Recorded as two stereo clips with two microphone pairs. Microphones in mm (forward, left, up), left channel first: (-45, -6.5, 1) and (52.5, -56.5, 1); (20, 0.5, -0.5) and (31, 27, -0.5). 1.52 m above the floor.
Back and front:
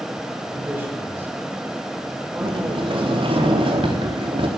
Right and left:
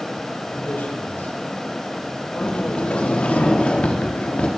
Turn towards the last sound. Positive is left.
turn(degrees=-65)